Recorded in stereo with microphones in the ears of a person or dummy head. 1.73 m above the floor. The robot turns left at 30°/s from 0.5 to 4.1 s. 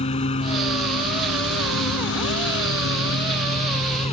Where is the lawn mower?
145° left; by 4.1 s 35° left.